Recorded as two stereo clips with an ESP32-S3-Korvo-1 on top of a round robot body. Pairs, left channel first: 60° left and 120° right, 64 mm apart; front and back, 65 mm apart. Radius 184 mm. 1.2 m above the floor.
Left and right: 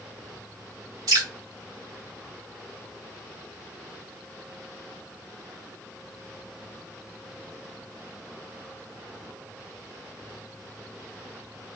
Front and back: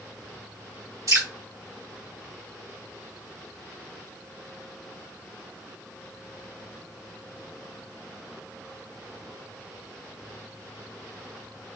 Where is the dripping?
145° right, 2 m.